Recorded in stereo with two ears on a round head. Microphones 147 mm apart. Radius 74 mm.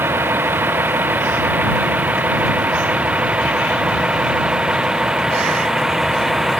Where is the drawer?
I don't hear a drawer.